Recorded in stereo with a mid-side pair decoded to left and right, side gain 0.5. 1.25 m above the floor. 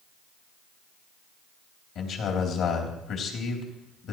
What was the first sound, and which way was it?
A man speaking, 65° left.